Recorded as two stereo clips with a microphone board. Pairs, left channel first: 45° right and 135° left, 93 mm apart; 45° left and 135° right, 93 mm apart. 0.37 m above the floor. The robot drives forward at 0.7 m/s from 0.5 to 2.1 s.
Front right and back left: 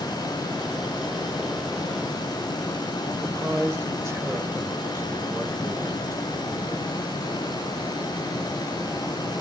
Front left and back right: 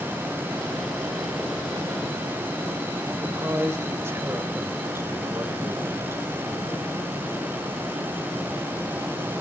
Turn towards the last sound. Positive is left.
turn(degrees=175)